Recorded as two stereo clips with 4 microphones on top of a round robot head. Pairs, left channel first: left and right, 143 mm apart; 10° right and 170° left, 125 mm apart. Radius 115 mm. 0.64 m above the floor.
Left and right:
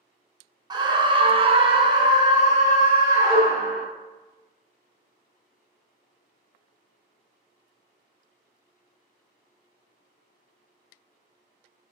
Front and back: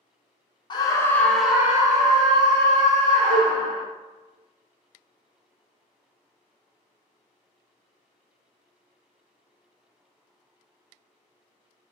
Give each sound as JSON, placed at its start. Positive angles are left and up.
{"t": 0.7, "sound": "a scream", "azimuth_deg": -45, "distance_m": 0.6}
{"t": 3.3, "sound": "a cowbell", "azimuth_deg": -175, "distance_m": 1.1}